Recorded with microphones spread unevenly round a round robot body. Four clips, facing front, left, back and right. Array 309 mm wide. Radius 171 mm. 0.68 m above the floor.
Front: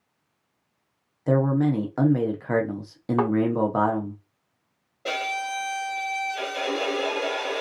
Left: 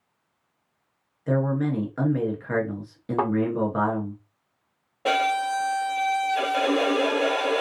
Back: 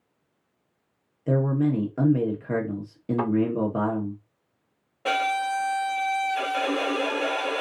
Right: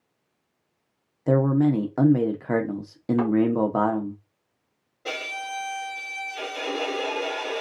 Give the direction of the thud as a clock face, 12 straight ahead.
11 o'clock.